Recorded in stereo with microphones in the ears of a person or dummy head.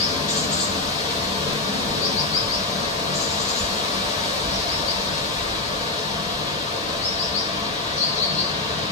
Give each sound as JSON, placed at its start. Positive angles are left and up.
{"t": 0.0, "sound": "running water", "side_deg": 40, "distance_m": 0.8}